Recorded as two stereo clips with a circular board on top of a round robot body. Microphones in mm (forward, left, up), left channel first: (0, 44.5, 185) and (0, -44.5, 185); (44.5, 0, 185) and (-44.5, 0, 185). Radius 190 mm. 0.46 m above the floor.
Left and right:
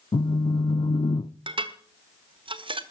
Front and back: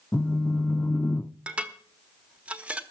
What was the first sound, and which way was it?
A phone buzzing, 70° left.